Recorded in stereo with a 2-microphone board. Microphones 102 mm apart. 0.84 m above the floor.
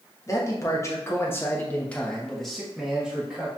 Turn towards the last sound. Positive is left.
turn(degrees=-10)  # may be behind; listen again after turning